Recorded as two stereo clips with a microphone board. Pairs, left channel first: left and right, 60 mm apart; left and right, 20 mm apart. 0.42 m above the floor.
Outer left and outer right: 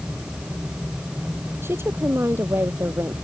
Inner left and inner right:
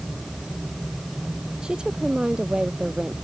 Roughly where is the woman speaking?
Right.